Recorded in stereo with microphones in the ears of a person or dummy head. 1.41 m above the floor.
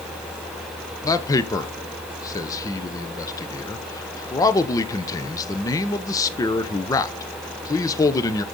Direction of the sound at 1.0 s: 20° left (ahead or behind).